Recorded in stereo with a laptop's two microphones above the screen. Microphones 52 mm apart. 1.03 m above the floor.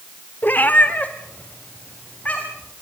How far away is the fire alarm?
No fire alarm in this recording.